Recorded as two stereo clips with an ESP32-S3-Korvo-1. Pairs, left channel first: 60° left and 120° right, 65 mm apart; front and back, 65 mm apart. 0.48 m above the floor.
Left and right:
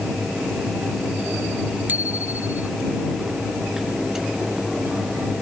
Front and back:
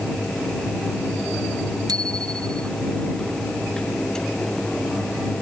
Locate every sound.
1.9 s a bicycle bell: 175° left